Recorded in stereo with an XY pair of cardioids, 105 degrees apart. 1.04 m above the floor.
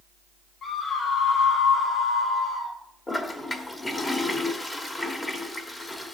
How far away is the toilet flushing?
About 1.2 m.